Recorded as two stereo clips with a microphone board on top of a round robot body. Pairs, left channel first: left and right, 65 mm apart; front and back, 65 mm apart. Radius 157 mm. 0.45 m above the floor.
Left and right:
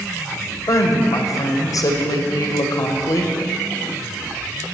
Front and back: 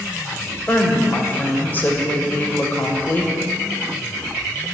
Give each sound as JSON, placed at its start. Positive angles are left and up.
{"t": 0.7, "sound": "a woman speaking", "azimuth_deg": 65, "distance_m": 2.0}